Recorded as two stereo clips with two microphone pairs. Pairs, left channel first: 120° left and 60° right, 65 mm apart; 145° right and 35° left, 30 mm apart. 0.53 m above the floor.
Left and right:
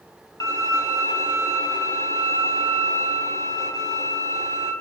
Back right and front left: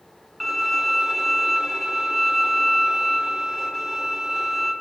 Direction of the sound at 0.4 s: 135° left.